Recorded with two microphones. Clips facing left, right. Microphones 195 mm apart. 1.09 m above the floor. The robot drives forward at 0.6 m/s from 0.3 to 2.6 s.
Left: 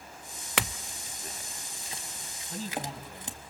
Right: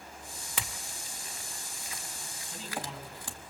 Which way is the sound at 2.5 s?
40° left (ahead or behind).